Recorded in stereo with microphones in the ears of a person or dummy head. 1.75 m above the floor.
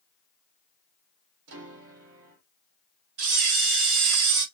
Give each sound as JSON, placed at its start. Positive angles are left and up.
{"t": 1.5, "sound": "a piano", "side_deg": -85, "distance_m": 1.6}
{"t": 3.2, "sound": "a camera shutter", "side_deg": -60, "distance_m": 1.6}